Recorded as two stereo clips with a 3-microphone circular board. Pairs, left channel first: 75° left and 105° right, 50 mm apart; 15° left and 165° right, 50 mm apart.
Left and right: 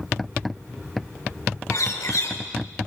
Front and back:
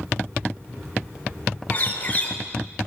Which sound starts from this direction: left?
A bird, at 1.7 s.